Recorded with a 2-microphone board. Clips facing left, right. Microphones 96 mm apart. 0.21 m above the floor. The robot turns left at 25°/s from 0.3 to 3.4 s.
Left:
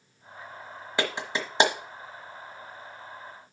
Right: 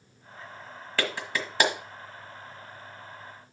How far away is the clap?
About 1.4 m.